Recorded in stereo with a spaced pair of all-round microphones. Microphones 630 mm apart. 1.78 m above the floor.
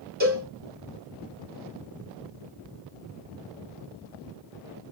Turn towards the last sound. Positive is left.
turn(degrees=-15)  # may be behind; listen again after turning